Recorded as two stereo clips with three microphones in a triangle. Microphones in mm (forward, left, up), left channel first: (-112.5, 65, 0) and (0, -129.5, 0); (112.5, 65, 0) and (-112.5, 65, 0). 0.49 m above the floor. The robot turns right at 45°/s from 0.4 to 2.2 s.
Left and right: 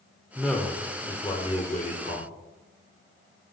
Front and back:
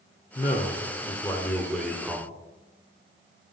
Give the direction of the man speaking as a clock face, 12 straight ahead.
11 o'clock.